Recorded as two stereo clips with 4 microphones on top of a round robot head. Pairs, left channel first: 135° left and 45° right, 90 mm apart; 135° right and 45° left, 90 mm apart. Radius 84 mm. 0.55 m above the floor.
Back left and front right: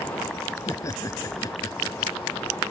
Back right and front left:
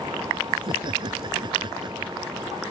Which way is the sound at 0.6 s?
80° left.